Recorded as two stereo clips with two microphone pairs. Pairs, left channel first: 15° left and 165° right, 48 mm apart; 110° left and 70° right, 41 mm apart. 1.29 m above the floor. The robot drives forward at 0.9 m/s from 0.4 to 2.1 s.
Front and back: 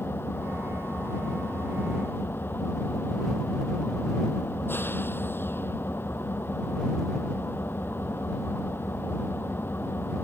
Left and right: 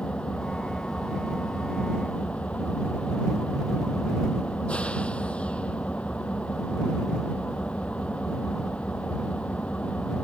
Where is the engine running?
50° left; by 10.2 s 55° left.